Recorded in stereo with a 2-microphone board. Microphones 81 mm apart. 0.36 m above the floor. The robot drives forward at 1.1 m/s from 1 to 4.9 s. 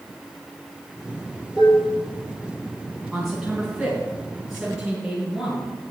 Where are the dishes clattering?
10° right (ahead or behind), 5.5 m.